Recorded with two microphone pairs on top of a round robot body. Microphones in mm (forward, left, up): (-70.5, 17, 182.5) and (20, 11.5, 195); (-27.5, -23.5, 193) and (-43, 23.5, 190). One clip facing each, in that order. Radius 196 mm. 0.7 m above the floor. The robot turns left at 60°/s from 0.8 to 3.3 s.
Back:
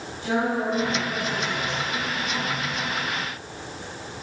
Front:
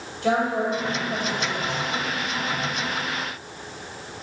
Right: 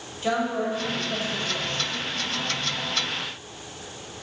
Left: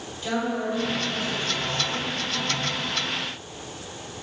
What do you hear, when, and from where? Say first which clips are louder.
0.2 s a woman speaking: front 2 dB, right 2 dB; 35° right, 2.5 m; by 1.8 s 95° right, 2.5 m